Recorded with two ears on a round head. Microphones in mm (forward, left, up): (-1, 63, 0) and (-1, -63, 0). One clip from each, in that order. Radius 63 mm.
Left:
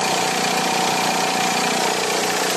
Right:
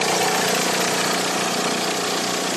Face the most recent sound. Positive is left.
No sound to turn to.